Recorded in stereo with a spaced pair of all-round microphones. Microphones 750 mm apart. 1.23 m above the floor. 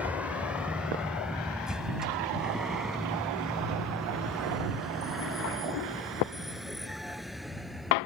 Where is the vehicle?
Centre (ahead or behind).